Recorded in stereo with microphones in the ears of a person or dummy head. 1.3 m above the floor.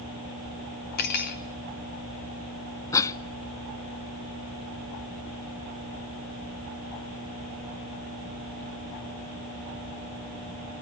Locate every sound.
1.0 s cutlery clinking: 50° left (ahead or behind), 0.9 m
2.9 s a cough: 20° left (ahead or behind), 0.7 m